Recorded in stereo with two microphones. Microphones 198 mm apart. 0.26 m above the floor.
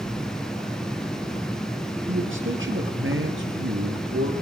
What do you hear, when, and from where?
2.1 s a man speaking: 75° right (ahead or behind), 4 m; by 4.3 s 80° right, 5.5 m